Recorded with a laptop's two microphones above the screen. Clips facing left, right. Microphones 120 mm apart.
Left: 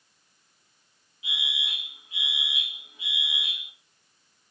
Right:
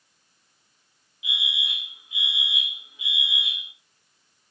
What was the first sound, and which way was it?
A fire alarm, 35° left (ahead or behind).